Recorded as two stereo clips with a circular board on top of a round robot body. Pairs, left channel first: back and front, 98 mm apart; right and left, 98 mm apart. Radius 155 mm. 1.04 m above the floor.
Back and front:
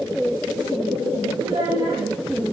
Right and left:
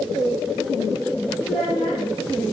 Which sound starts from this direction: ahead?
A child speaking, at 1.4 s.